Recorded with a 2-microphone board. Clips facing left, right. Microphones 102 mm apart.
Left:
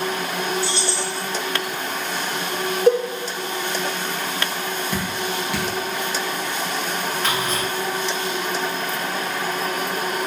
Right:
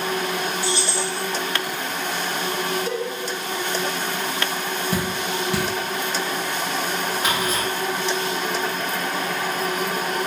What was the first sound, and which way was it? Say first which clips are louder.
Keys jangling: even; 20° right (ahead or behind).